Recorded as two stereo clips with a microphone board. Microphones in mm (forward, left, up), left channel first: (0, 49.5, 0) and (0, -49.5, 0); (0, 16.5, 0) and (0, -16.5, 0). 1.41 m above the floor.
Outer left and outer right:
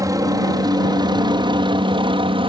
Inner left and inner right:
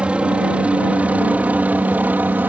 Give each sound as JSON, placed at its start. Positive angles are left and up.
{"t": 0.0, "sound": "a helicopter", "side_deg": -35}